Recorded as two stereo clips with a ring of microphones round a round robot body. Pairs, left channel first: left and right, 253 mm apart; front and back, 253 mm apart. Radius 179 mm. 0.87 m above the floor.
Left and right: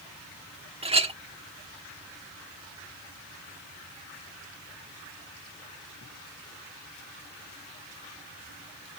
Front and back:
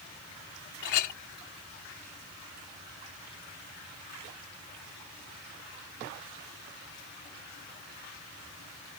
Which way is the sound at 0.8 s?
20° right.